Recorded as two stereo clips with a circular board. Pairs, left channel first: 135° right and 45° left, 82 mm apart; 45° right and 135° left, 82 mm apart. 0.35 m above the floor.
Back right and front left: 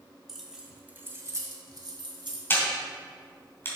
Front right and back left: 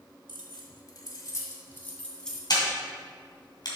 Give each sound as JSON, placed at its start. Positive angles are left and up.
{"t": 0.3, "sound": "keys jangling", "azimuth_deg": -45, "distance_m": 1.5}
{"t": 2.5, "sound": "a camera shutter", "azimuth_deg": -75, "distance_m": 2.5}